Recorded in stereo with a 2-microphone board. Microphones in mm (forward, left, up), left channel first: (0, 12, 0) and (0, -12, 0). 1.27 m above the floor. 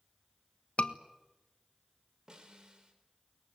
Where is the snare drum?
40° right (ahead or behind), 4 m.